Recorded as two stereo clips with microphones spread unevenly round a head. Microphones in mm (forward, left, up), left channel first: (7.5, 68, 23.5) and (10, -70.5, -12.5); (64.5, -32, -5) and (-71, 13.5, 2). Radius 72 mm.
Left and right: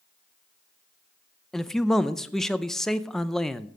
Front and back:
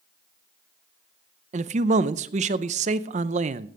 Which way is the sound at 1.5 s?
170° right.